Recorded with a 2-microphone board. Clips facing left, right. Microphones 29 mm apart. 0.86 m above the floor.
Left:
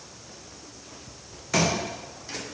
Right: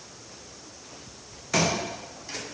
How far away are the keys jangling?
No keys jangling in this recording.